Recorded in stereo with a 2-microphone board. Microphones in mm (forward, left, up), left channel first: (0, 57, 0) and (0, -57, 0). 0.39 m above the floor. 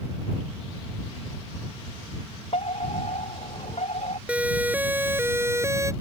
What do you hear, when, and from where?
2.5 s a fire alarm: 65° left (ahead or behind)
4.3 s a siren: 10° right (ahead or behind); by 5.9 s 25° right (ahead or behind)